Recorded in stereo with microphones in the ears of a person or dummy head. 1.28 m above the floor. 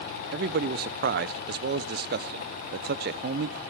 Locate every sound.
0.3 s a man speaking: 45° right (ahead or behind), 0.5 m